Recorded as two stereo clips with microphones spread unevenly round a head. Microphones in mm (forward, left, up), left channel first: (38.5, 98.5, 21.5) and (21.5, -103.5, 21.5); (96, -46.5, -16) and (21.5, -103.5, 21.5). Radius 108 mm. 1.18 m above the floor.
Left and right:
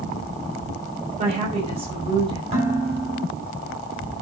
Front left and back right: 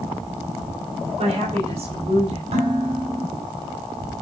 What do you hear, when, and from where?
1.2 s a woman speaking: 160° right, 5.5 m; by 2.4 s 165° right, 5 m
2.5 s dishes clattering: 160° right, 5 m